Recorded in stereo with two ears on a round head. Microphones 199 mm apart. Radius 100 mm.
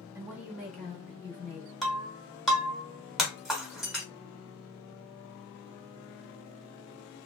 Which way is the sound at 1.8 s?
Centre (ahead or behind).